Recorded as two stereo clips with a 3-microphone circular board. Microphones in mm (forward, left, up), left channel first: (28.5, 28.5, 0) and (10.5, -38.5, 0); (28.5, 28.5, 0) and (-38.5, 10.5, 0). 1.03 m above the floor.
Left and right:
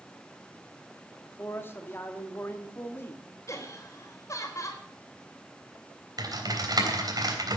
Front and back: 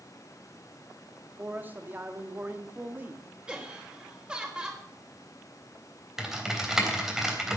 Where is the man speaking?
130° left, 2 m.